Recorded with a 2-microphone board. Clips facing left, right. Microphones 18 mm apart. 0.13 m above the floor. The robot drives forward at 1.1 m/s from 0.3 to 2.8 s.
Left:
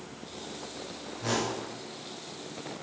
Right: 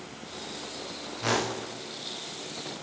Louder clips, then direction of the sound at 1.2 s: Right 3 dB; 45° right (ahead or behind).